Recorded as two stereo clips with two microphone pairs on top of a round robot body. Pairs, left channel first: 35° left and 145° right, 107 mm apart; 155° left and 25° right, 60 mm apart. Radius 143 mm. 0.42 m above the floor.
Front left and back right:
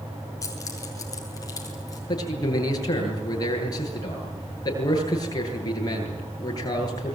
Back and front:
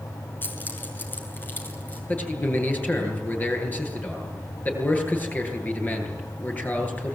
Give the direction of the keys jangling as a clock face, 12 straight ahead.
9 o'clock.